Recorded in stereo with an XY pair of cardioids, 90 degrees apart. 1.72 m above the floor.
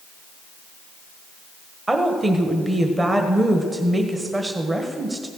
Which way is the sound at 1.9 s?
25° right.